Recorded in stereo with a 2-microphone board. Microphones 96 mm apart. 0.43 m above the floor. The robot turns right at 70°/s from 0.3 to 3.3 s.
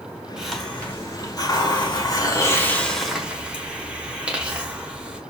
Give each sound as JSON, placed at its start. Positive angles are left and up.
{"t": 0.4, "sound": "a hiss", "azimuth_deg": -10, "distance_m": 1.0}